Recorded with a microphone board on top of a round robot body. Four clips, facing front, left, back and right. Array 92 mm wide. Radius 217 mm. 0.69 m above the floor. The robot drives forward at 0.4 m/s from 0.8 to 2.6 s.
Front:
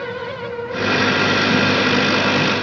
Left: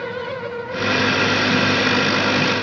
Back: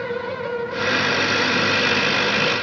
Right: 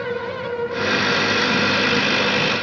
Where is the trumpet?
No trumpet in this recording.